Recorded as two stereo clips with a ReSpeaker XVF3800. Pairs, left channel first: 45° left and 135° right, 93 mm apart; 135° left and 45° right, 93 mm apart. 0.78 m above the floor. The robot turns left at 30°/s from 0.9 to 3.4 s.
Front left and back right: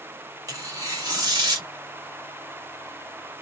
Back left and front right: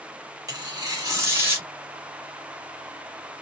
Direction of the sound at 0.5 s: 90° right.